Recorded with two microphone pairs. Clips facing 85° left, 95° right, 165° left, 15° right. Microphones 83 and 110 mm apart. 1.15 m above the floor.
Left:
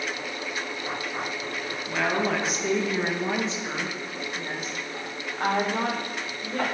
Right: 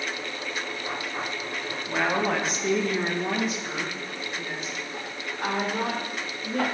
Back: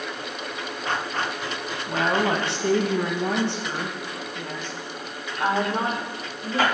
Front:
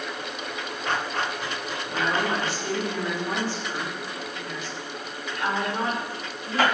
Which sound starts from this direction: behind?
A woman speaking, at 1.9 s.